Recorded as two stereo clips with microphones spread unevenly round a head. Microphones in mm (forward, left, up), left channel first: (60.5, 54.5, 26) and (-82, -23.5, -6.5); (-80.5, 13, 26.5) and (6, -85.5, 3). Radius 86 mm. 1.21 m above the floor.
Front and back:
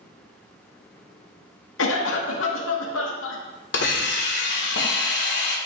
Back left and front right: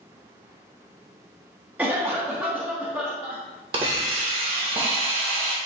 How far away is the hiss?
About 1.5 m.